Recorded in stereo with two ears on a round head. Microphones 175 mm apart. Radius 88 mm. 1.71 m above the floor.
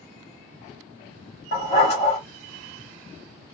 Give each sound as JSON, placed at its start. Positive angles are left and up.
{"t": 1.5, "sound": "a dog barking", "side_deg": 35, "distance_m": 1.5}